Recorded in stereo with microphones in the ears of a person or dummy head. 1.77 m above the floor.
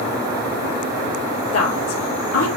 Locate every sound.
1.5 s a woman speaking: 85° left, 3 m